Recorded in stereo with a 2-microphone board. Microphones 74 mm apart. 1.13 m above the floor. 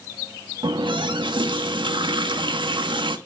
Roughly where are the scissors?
No scissors in this recording.